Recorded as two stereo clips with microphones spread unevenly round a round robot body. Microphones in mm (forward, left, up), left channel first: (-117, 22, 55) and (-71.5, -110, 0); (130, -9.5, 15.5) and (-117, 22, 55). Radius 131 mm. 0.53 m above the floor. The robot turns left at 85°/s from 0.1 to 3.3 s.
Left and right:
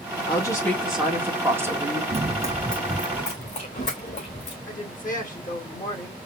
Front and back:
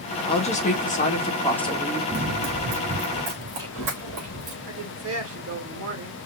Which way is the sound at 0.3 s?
40° left.